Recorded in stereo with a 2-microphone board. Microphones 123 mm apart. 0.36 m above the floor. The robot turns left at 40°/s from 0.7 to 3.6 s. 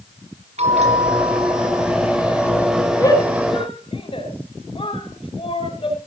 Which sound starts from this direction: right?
A bell, at 0.6 s.